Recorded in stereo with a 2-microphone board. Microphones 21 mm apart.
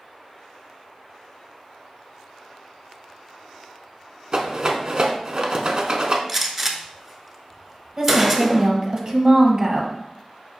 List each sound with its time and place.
4.3 s a rattle: 35° right (ahead or behind), 0.6 m
6.3 s a gunshot: 10° right (ahead or behind), 0.6 m
8.0 s a woman speaking: 30° right (ahead or behind), 1.0 m